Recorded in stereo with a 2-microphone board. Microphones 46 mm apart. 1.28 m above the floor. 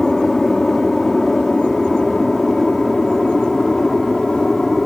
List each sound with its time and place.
0.0 s an aircraft: centre (ahead or behind)